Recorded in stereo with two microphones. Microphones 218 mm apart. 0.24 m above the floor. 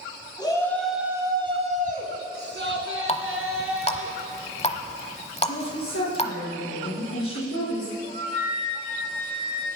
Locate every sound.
0.4 s a shout: 20° left (ahead or behind), 2 m; by 4.1 s 70° right (ahead or behind), 4.5 m
3.1 s a running tap: 25° left (ahead or behind), 1.0 m
5.4 s a woman speaking: 70° left (ahead or behind), 6 m
8.0 s a flute: 75° left (ahead or behind), 7 m